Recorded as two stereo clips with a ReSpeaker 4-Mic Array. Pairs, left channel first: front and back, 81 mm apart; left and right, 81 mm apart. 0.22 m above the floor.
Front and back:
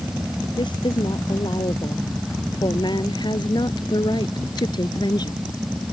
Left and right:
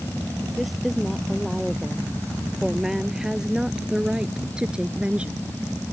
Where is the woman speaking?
Straight ahead; by 5.4 s 15° right.